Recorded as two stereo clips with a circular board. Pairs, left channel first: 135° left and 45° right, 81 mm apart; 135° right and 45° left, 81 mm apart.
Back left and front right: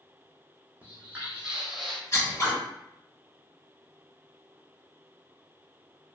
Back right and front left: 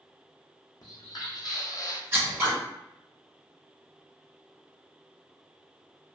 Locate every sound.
0.8 s footsteps: 115° right, 1.0 m; by 2.0 s 140° right, 0.6 m
2.1 s scissors: 100° left, 1.5 m